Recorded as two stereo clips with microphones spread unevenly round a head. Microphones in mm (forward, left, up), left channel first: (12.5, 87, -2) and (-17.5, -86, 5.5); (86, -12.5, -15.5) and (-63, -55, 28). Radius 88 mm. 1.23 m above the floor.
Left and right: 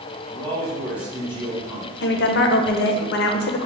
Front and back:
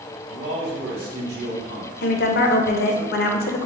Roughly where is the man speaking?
Behind.